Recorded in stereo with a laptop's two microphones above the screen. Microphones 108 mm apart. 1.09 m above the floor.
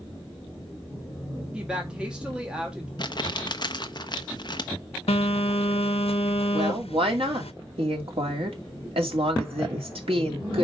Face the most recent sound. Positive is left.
turn(degrees=-70)  # may be behind; listen again after turning